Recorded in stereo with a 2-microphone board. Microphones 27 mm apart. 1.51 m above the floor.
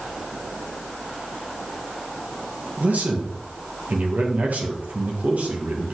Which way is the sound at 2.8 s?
80° right.